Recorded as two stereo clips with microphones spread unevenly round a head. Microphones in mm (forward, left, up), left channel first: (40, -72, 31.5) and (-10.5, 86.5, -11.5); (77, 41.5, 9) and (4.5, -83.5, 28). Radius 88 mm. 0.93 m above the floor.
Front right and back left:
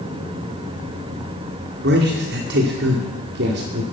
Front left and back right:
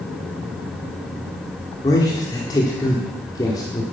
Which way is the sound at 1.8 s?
130° left.